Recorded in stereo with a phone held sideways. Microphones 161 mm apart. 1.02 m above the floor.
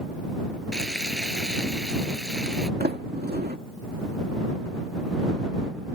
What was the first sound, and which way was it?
Frying, 5° left (ahead or behind).